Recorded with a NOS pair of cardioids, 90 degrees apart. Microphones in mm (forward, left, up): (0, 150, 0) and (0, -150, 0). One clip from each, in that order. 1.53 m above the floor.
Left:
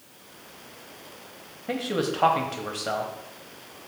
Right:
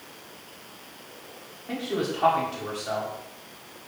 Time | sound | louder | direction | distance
1.7 | a man speaking | left 2 dB | 40° left | 0.7 m